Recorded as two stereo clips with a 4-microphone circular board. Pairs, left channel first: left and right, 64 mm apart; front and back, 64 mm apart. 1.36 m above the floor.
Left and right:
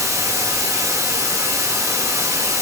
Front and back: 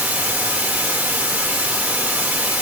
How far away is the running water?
About 2.5 m.